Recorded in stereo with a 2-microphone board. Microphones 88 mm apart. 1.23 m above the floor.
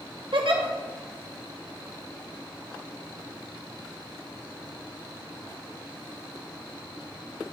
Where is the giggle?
70° right (ahead or behind), 0.7 m.